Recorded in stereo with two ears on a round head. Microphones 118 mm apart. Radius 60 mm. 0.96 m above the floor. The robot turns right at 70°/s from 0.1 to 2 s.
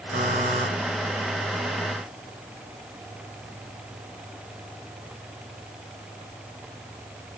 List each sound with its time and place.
0.1 s a buzzer: 80° right, 4.5 m; by 0.7 s 45° right, 4.5 m